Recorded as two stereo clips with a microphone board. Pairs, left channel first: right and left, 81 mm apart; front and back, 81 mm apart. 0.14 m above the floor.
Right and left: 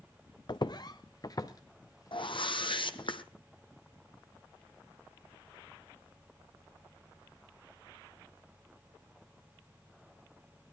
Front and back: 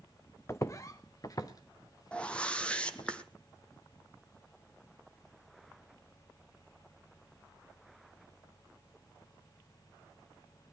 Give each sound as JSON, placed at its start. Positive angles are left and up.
{"t": 0.5, "sound": "footsteps", "azimuth_deg": -55, "distance_m": 0.7}
{"t": 2.1, "sound": "a whoosh", "azimuth_deg": -75, "distance_m": 1.0}